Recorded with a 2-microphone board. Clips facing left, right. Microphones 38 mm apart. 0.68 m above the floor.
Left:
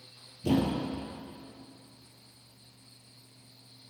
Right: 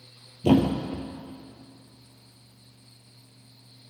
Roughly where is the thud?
Right.